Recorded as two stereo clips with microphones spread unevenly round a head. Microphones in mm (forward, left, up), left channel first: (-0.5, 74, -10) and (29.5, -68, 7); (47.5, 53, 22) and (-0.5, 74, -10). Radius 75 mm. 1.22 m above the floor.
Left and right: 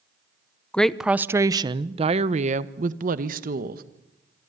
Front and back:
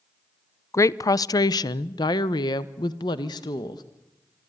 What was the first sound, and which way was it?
A woman speaking, 25° left.